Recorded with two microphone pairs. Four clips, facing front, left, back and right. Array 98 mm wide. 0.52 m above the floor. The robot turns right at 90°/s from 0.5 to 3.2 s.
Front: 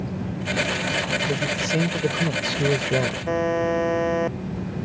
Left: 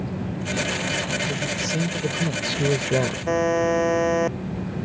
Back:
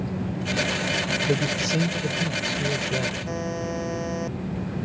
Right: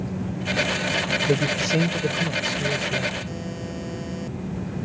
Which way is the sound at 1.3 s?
90° right.